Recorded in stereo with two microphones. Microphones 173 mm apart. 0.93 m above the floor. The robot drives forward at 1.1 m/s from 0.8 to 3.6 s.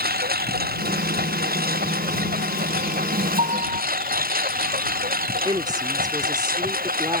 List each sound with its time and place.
0.0 s a lawn mower: 60° right (ahead or behind); by 7.2 s 55° right (ahead or behind)
3.4 s a piano: 40° right (ahead or behind); by 3.8 s 45° right (ahead or behind)
5.5 s a woman speaking: 25° right (ahead or behind)